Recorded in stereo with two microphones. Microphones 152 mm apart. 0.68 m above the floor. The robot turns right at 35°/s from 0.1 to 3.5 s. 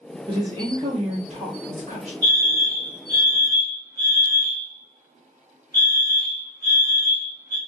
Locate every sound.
0.3 s a woman speaking: 145° right, 1.4 m; by 2.1 s 80° right, 1.4 m
2.2 s a fire alarm: 25° right (ahead or behind), 1.8 m; by 7.6 s 20° right (ahead or behind), 1.8 m